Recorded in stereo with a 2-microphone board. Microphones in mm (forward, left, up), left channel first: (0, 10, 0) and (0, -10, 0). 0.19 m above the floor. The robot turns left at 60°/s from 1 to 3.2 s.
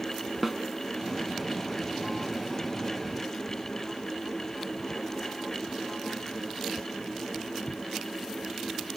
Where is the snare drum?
Centre (ahead or behind), 0.8 m.